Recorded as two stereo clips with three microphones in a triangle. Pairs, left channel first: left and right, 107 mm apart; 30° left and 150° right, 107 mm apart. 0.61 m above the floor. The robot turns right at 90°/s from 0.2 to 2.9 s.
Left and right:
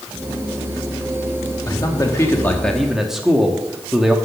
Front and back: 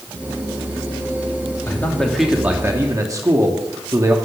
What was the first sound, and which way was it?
A man speaking, 75° left.